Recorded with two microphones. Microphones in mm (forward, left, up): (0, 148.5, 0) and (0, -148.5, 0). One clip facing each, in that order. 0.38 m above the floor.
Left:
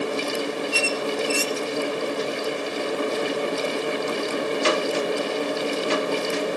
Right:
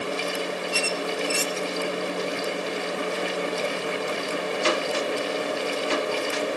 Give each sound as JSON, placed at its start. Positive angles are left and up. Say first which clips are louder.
{"t": 0.7, "sound": "a squeak", "louder": "left 3 dB", "side_deg": 65, "distance_m": 0.9}